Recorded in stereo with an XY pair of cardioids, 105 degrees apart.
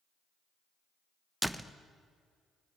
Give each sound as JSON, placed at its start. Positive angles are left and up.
{"t": 1.4, "sound": "a door slam", "azimuth_deg": -5, "distance_m": 1.0}